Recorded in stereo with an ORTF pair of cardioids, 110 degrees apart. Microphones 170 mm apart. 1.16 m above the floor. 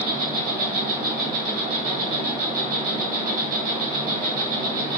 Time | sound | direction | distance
0.0 | an insect | 65° right | 1.3 m